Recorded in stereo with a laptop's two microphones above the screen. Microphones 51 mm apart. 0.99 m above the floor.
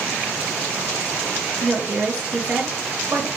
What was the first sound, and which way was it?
A woman speaking, 25° right (ahead or behind).